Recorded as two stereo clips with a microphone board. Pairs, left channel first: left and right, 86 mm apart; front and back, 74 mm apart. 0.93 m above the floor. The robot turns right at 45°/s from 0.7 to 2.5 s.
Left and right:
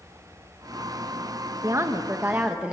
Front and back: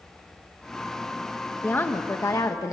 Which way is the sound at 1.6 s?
55° right.